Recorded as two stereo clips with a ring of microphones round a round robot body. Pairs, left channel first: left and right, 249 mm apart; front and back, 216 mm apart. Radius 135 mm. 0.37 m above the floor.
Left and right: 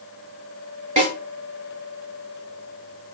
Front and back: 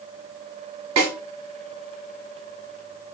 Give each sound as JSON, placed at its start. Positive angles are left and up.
{"t": 1.0, "sound": "a snare drum", "azimuth_deg": -155, "distance_m": 1.1}